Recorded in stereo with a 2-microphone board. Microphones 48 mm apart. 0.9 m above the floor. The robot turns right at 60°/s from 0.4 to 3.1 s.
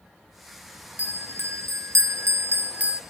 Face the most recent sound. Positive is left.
turn(degrees=-20)